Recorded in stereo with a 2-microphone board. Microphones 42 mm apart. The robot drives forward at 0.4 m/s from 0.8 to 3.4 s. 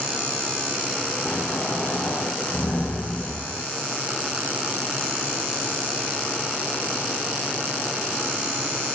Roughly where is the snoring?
Left.